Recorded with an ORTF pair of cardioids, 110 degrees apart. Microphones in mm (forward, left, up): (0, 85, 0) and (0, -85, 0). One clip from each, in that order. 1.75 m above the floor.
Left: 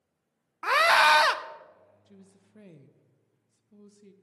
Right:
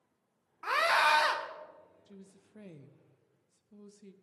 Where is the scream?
40° left, 0.8 m.